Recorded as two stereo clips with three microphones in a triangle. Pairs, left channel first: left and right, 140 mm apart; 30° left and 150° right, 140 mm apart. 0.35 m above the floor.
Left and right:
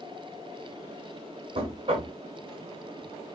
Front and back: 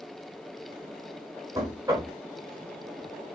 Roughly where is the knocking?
Right.